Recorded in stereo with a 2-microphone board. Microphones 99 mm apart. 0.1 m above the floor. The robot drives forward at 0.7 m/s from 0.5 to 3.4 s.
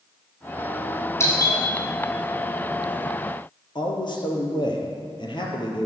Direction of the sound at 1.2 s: 30° left (ahead or behind).